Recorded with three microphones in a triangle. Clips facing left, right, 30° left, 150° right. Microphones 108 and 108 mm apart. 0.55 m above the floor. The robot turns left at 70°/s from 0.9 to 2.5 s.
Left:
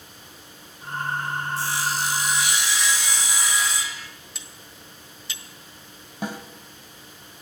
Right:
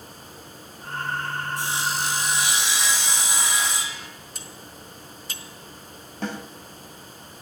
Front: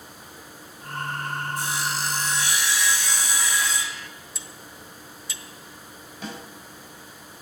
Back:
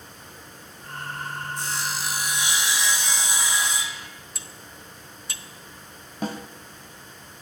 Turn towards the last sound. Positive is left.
turn(degrees=170)